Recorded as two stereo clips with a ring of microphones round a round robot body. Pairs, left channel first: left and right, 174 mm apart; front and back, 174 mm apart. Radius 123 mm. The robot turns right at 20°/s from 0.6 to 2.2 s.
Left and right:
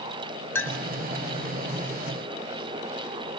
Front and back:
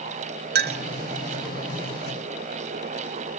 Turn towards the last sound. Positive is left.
turn(degrees=-160)